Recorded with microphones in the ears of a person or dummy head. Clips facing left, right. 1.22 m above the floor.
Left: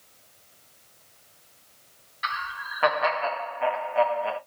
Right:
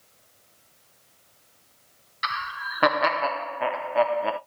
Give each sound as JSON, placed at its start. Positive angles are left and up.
{"t": 2.2, "sound": "laughter", "side_deg": -50, "distance_m": 0.6}